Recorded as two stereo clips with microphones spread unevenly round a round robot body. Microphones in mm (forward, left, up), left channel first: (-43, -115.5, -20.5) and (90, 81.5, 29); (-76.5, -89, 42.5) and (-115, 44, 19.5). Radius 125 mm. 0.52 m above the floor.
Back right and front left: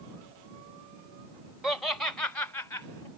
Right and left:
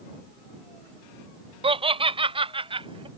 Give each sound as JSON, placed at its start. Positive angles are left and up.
{"t": 1.6, "sound": "laughter", "azimuth_deg": 150}